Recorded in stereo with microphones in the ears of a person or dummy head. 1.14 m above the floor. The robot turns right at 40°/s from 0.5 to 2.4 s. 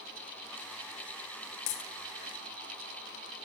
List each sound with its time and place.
1.7 s a dropped coin: 40° left (ahead or behind), 0.8 m; by 1.9 s 35° left (ahead or behind), 0.8 m